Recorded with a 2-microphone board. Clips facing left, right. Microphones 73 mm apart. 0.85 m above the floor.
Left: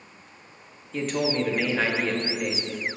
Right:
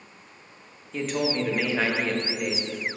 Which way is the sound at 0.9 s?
Centre (ahead or behind).